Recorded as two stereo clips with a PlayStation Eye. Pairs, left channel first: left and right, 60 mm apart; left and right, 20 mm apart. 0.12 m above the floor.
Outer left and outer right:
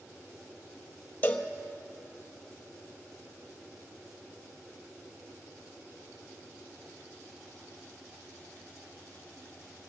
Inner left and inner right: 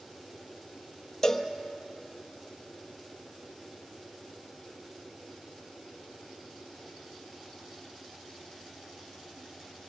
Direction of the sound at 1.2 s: 30° left (ahead or behind).